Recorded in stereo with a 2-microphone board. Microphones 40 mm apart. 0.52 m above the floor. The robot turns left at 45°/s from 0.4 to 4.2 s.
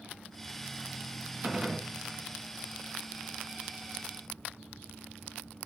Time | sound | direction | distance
1.4 | a gunshot | 5° left (ahead or behind) | 1.4 m